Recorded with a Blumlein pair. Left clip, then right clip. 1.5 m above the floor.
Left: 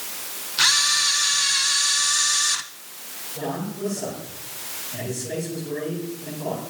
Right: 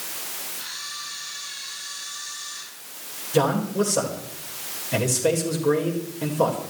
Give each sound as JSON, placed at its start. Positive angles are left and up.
{"t": 0.6, "sound": "a camera shutter", "azimuth_deg": 50, "distance_m": 1.1}
{"t": 3.3, "sound": "a man speaking", "azimuth_deg": -50, "distance_m": 5.0}